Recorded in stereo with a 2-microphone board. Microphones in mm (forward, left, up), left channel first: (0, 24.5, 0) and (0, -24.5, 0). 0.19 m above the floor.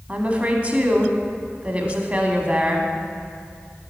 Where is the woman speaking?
25° right (ahead or behind), 1.1 m.